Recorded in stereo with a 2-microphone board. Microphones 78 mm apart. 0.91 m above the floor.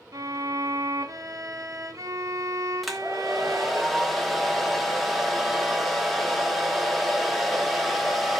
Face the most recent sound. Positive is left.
turn(degrees=0)  # may be behind; listen again after turning